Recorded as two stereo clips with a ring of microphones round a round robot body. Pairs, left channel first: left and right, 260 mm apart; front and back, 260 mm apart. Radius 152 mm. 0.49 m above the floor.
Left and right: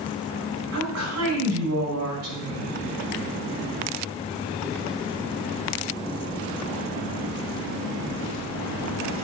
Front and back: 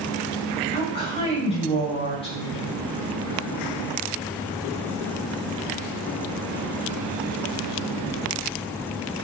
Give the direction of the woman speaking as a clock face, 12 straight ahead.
2 o'clock.